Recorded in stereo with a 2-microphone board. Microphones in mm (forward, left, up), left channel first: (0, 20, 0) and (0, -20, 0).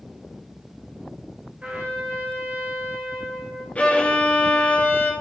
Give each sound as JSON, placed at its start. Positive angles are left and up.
{"t": 1.6, "sound": "a trumpet", "side_deg": -35, "distance_m": 1.9}
{"t": 3.8, "sound": "a violin", "side_deg": 35, "distance_m": 1.7}